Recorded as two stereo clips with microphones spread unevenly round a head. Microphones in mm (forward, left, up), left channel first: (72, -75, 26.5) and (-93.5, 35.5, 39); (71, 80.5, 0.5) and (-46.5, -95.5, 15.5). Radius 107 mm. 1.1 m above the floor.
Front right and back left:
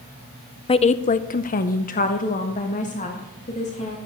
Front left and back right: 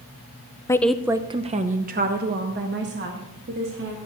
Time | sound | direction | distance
0.7 | a woman speaking | straight ahead | 0.6 m